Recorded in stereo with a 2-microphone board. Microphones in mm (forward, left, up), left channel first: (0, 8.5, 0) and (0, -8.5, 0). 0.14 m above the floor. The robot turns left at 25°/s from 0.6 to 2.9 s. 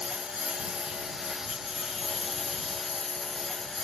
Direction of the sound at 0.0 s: 140° right.